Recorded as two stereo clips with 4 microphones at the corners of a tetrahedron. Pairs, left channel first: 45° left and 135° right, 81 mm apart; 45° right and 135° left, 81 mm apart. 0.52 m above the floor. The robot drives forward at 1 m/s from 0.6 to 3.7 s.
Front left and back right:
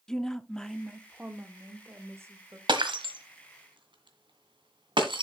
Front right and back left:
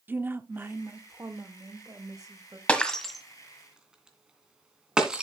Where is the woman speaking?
120° left, 0.9 m; by 2.6 s 170° left, 2.5 m.